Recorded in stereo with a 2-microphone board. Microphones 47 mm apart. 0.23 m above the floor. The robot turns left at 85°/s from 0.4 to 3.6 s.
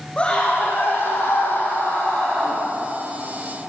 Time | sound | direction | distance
0.2 | a scream | 155° left | 9.5 m